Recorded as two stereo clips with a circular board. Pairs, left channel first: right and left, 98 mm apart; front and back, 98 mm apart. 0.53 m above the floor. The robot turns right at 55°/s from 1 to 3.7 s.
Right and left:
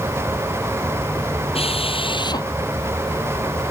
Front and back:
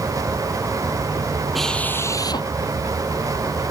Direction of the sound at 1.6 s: 90° right.